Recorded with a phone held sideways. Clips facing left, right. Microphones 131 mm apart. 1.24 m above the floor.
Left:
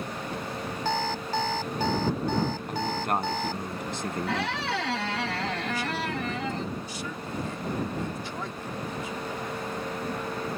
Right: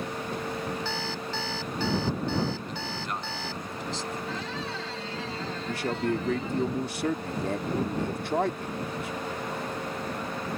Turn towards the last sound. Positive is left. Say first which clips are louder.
# right 2 dB
turn(degrees=-65)  # may be behind; listen again after turning